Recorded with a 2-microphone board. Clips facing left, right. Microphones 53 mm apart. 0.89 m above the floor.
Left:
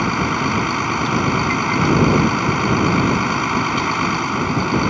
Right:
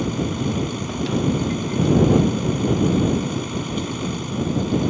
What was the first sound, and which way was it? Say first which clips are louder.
A vehicle: left 5 dB; 65° left (ahead or behind).